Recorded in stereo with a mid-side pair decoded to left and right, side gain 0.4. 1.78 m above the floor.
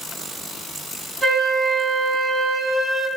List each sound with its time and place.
1.2 s a flute: 10° left, 3 m